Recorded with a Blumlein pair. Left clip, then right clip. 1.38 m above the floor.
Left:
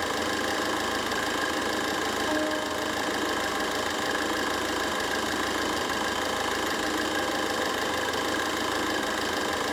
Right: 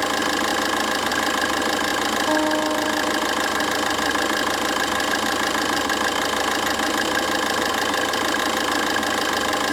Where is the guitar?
65° right, 4 m.